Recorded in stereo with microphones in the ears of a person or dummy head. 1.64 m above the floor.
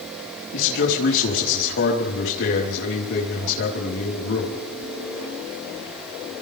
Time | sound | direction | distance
0.5 | a man speaking | 70° left (ahead or behind) | 5 m